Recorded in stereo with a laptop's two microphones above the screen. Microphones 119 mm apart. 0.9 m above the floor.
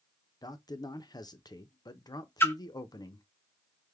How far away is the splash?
About 0.5 m.